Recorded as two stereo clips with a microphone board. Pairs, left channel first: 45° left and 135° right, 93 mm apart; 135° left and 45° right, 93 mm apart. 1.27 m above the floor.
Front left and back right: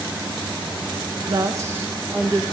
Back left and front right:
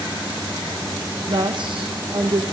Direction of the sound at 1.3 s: 90° right.